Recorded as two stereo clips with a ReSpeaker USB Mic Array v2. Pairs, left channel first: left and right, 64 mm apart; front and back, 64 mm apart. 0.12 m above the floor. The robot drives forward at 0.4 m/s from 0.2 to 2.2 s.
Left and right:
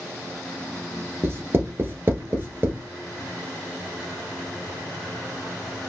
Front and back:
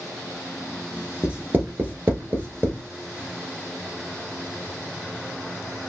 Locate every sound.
1.2 s writing: 115° right, 0.9 m; by 2.8 s 140° right, 1.1 m